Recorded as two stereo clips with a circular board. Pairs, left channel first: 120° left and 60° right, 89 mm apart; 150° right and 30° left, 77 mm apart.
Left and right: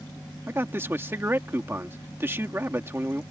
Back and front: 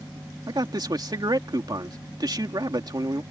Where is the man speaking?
Straight ahead.